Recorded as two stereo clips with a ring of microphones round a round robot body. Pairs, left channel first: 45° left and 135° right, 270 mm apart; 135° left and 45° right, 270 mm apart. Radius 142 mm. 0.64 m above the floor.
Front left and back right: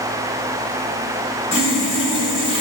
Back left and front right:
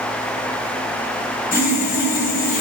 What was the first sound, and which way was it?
Sawing, 85° left.